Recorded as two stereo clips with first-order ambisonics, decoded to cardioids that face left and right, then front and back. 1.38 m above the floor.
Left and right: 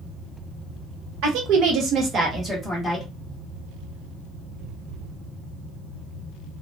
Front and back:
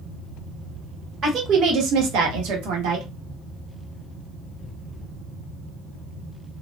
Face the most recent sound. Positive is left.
turn(degrees=170)